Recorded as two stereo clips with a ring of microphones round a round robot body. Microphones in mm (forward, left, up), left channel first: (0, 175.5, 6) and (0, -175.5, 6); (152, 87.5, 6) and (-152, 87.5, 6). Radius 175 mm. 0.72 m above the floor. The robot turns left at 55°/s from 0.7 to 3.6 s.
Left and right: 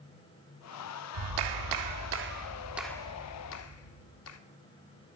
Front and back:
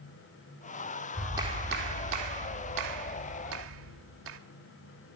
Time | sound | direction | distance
1.1 | a clap | 85° right | 1.7 m